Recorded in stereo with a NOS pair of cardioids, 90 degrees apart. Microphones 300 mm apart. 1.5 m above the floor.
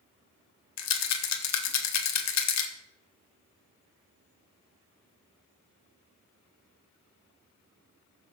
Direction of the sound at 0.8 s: 65° left.